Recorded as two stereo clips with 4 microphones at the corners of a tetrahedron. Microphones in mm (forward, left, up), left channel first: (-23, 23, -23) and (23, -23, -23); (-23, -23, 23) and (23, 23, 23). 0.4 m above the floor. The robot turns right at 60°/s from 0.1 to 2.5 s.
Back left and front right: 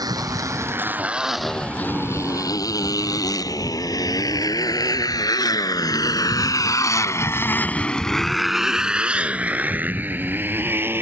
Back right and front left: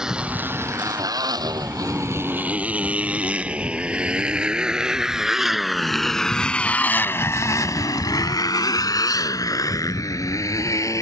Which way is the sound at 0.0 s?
35° right.